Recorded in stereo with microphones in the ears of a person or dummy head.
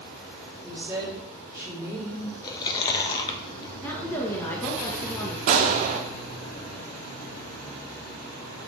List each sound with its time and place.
0.6 s a woman speaking: 5° right (ahead or behind), 2.5 m
2.4 s chewing: 25° left (ahead or behind), 0.9 m
3.8 s a woman speaking: 10° left (ahead or behind), 1.2 m
5.5 s a gunshot: 40° right (ahead or behind), 0.8 m